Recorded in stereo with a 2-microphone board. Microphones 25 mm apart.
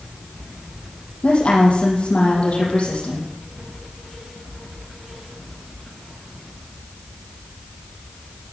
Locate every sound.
1.2 s a woman speaking: 50° left (ahead or behind), 7 m